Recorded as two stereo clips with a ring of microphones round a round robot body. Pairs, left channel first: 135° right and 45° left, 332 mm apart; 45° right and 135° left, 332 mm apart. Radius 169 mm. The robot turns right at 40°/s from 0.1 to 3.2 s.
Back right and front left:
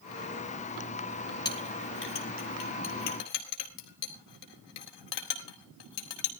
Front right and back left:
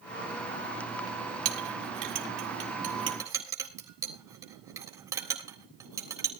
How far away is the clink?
About 3.5 m.